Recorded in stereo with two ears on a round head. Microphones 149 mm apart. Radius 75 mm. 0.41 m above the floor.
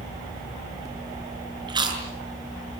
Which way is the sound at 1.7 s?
30° right (ahead or behind).